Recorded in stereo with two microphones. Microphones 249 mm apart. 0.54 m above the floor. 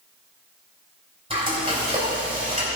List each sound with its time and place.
1.3 s frying: 25° right (ahead or behind), 3 m